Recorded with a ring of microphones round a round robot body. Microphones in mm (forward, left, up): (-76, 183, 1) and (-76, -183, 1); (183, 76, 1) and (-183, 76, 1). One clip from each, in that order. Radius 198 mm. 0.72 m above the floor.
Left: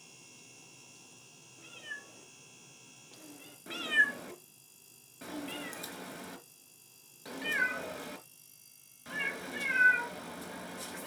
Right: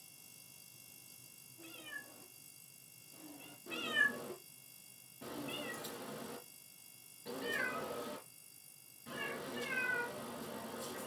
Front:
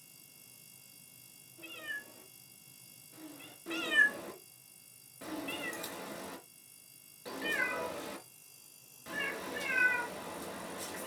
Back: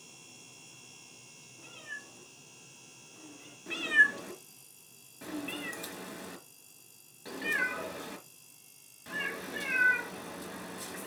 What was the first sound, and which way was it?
A cat meowing, 50° left.